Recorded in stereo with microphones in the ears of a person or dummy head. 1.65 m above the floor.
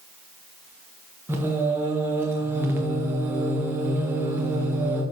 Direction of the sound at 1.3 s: 15° right (ahead or behind).